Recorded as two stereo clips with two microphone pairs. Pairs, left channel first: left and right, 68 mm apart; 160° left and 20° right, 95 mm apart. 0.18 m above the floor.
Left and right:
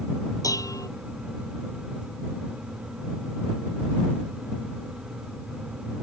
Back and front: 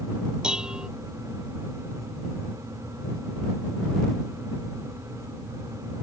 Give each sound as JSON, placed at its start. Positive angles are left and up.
{"t": 0.4, "sound": "dishes clattering", "azimuth_deg": 60}